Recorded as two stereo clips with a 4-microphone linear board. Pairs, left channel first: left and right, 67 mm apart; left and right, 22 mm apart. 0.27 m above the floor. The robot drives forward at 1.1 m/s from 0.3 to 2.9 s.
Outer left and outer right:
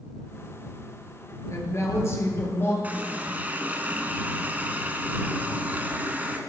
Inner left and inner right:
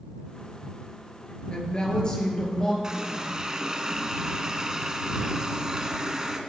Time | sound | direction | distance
1.5 | a woman speaking | 50° left (ahead or behind) | 5.5 m
2.8 | a running tap | 25° right (ahead or behind) | 2.0 m